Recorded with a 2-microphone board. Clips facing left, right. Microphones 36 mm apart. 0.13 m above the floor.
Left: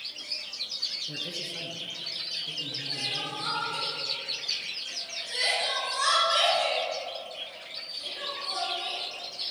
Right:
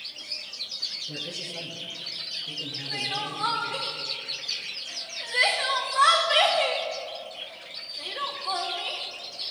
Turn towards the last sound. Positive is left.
turn(degrees=-40)  # may be behind; listen again after turning